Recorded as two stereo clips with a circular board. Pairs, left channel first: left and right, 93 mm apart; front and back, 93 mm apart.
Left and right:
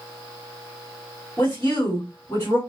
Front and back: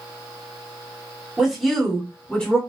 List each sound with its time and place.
1.4 s a woman speaking: 110° left, 1.5 m; by 2.6 s 55° left, 1.6 m